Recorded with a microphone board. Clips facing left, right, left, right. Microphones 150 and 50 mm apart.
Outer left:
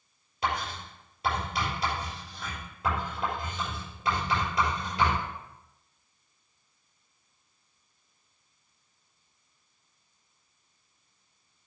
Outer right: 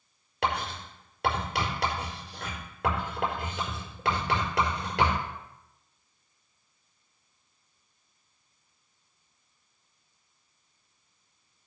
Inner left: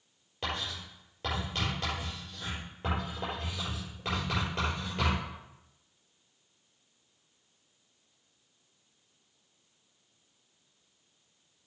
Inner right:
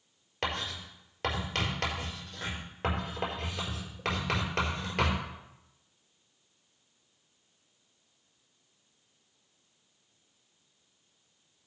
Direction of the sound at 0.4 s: 65° right (ahead or behind).